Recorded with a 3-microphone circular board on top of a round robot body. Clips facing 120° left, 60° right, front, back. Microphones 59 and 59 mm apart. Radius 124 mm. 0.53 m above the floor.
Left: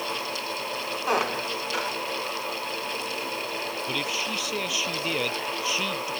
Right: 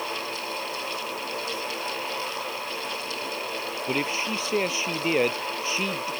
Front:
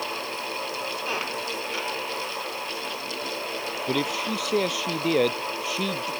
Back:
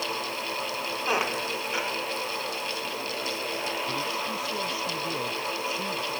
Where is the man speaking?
5° right.